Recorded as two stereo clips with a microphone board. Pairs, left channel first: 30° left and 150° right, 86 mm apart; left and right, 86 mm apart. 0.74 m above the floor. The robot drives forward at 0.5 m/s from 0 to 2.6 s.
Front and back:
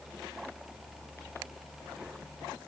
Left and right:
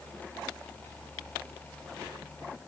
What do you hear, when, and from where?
Only background noise.